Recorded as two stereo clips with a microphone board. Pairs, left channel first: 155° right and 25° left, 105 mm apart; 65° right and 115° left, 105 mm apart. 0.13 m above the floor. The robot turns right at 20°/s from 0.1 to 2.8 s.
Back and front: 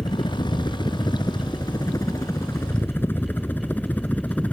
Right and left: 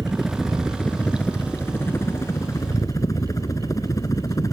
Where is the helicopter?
165° right; by 4.5 s 90° right.